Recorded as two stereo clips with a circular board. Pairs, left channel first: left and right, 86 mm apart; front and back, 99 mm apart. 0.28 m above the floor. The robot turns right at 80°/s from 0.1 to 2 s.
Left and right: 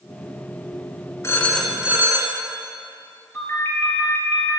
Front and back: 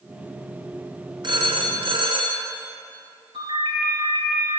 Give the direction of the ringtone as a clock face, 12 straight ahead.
7 o'clock.